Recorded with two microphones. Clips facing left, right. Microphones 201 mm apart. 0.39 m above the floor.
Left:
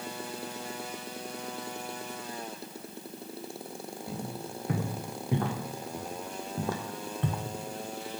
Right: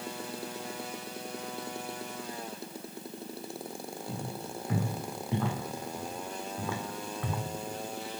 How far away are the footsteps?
About 2.5 m.